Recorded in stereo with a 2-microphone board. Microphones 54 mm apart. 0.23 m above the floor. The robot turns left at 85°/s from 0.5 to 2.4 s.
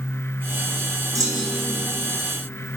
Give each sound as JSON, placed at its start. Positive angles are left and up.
{"t": 1.1, "sound": "a clunk", "azimuth_deg": -85, "distance_m": 6.0}